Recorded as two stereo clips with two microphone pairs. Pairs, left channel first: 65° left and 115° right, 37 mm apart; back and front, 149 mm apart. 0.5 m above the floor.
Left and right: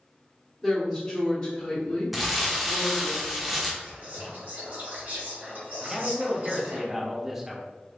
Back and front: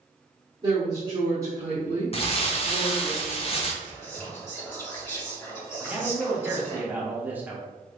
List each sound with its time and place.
0.6 s a woman speaking: 10° right, 1.3 m; by 3.1 s 75° left, 1.9 m
2.1 s crumpling: 160° left, 0.7 m
3.8 s whispering: 110° right, 1.9 m
5.8 s a man speaking: 55° right, 0.8 m